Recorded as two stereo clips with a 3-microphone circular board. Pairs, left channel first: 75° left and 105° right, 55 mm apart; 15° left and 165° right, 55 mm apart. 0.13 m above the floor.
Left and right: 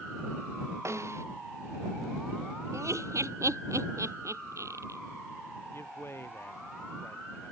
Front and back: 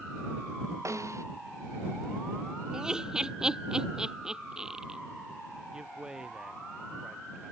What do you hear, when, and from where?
0.8 s a snare drum: 140° right
2.7 s laughter: 90° right
5.7 s a man speaking: 115° left